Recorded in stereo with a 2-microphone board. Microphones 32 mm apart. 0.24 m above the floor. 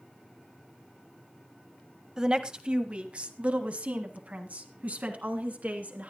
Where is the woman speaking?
20° right (ahead or behind), 1.1 m; by 6.1 s 55° right (ahead or behind), 3 m.